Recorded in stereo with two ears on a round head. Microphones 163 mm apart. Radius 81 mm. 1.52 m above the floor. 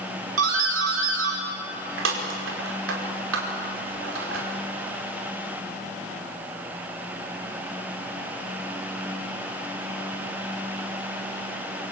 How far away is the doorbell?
About 5 m.